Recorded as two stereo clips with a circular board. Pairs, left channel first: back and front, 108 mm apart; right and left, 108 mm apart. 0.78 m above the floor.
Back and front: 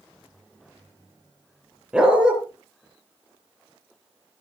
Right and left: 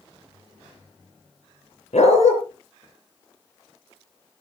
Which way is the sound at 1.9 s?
80° right.